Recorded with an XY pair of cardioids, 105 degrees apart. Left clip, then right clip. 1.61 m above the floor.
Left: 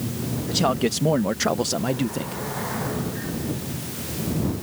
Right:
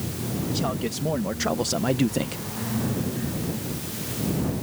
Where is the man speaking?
55° left; by 2.4 s 45° right.